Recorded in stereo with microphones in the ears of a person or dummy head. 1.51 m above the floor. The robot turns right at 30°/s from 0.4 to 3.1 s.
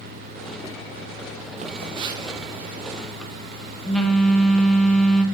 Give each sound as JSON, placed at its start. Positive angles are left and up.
{"t": 1.6, "sound": "a phone buzzing", "azimuth_deg": -40, "distance_m": 0.8}